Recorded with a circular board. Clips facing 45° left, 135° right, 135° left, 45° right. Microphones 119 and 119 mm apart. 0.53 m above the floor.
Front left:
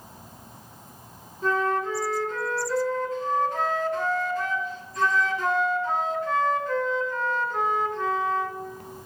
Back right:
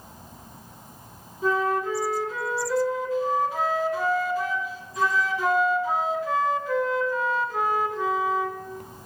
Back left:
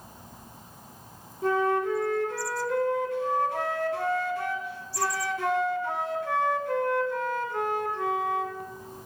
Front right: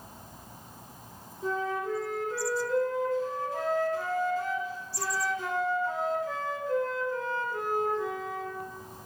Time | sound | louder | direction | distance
1.4 | a flute | back right 1 dB, back left 6 dB | 145° left | 0.8 m